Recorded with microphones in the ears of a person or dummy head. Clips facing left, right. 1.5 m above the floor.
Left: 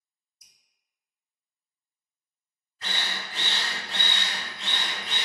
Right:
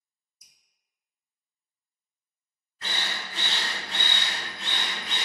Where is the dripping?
65° right (ahead or behind), 0.7 m.